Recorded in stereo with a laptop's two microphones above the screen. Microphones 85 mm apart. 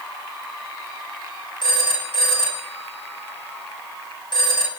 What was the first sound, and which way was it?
A phone ringing, 60° left (ahead or behind).